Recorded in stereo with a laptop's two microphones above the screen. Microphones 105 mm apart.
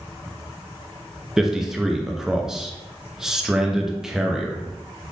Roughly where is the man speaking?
Centre.